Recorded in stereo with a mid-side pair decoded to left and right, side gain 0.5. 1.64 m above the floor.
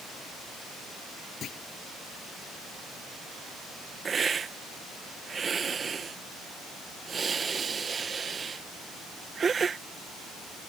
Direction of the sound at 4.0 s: 35° right.